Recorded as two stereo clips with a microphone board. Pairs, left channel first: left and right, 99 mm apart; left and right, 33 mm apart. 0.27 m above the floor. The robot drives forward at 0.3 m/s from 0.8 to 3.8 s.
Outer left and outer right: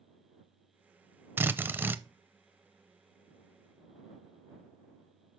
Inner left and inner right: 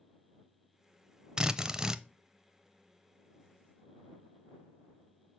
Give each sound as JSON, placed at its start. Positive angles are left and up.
{"t": 1.4, "sound": "a drill", "side_deg": -20, "distance_m": 0.6}